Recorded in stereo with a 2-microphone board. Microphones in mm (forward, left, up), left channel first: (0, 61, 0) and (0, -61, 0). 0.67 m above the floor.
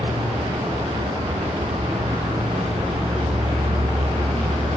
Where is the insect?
60° right (ahead or behind), 1.2 m.